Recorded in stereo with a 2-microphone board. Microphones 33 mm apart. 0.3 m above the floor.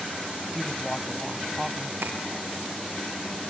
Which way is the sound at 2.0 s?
85° right.